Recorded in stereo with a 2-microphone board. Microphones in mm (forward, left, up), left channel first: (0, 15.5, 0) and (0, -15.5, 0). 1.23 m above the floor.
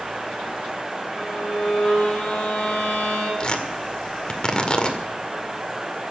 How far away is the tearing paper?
About 1.9 m.